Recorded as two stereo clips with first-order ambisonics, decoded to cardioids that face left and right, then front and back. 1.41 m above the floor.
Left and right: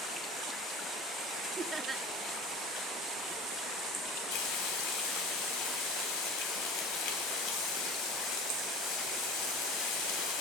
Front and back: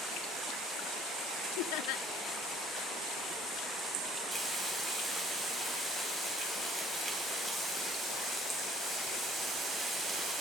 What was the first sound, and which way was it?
Laughter, 10° right.